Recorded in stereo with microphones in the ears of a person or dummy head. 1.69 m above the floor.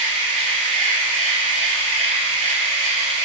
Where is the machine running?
30° right (ahead or behind), 0.8 m.